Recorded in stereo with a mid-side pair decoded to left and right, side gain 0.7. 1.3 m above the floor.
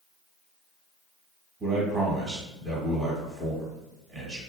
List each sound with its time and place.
1.6 s a man speaking: 25° right, 1.5 m